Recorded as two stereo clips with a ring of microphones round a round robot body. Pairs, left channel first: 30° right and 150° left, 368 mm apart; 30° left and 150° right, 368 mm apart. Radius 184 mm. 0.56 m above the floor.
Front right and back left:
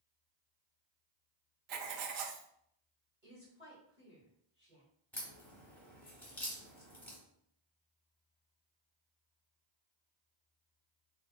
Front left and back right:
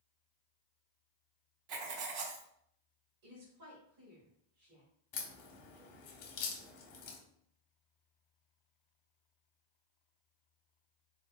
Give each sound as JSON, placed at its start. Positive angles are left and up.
{"t": 1.7, "sound": "writing", "azimuth_deg": 180, "distance_m": 0.5}
{"t": 3.2, "sound": "a woman speaking", "azimuth_deg": -135, "distance_m": 1.9}
{"t": 5.1, "sound": "a crack", "azimuth_deg": 55, "distance_m": 0.7}